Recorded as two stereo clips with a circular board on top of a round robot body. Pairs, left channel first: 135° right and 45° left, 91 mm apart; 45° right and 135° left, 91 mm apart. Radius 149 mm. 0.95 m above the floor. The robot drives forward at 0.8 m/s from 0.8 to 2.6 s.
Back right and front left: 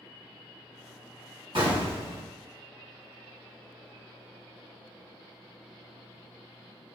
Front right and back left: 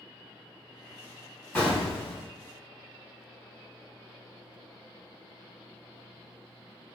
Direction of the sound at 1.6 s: 35° left.